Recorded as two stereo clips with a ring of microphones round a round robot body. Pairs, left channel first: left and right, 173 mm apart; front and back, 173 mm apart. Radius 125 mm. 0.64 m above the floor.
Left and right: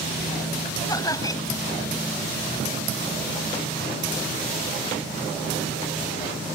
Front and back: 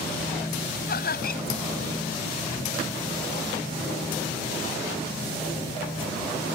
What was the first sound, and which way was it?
Laughter, 20° left.